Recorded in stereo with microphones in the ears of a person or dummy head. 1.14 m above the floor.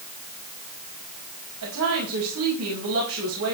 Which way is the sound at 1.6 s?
80° right.